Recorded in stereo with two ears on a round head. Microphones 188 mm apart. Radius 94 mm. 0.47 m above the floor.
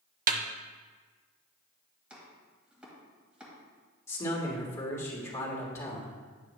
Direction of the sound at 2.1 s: 5° right (ahead or behind).